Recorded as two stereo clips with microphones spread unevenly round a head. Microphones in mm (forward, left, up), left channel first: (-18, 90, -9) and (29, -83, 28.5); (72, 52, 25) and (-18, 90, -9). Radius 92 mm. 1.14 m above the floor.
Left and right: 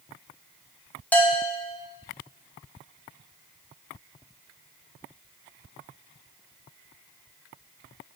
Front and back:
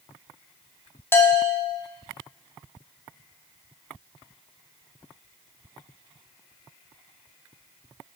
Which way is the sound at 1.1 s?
60° left.